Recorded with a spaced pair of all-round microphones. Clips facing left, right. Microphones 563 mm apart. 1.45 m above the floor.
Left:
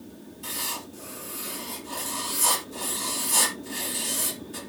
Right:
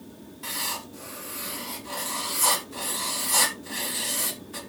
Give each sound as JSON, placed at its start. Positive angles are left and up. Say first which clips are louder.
{"t": 0.4, "sound": "writing", "louder": "left 1 dB", "side_deg": -75, "distance_m": 3.5}